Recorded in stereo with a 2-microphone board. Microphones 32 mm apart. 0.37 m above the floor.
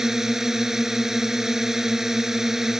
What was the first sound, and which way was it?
A drone, 15° right (ahead or behind).